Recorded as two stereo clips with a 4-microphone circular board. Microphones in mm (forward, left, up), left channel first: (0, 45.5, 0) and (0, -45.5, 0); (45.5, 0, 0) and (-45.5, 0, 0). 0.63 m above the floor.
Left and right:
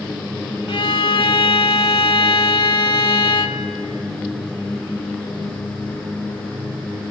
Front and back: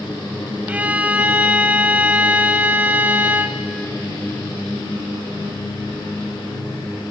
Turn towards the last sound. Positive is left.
turn(degrees=110)